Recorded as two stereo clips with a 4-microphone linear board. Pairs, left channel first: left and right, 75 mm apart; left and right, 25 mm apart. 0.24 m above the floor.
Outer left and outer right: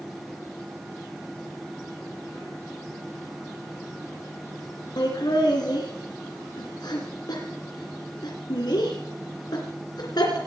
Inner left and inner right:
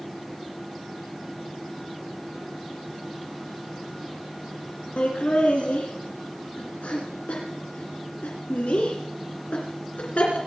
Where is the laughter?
65° left (ahead or behind), 2.5 m.